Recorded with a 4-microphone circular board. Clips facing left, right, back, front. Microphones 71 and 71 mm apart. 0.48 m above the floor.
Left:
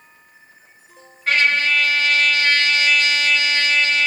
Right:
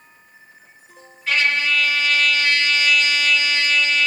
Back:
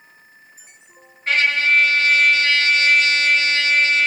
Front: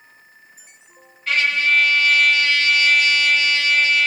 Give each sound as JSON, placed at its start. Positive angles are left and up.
{"t": 1.3, "sound": "a trumpet", "azimuth_deg": 125, "distance_m": 2.0}